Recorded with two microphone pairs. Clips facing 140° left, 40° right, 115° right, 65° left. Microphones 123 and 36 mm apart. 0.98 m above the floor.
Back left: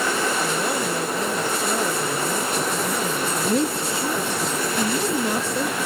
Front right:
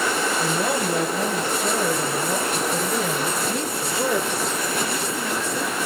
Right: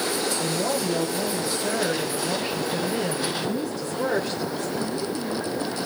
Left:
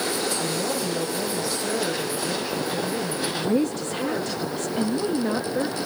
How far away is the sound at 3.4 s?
About 1.5 m.